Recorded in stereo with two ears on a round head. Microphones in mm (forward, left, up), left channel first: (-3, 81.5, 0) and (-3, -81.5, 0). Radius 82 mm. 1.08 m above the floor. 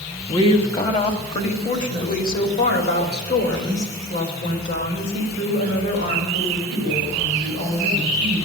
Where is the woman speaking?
25° left (ahead or behind), 1.6 m; by 8.4 s 70° left (ahead or behind), 6 m.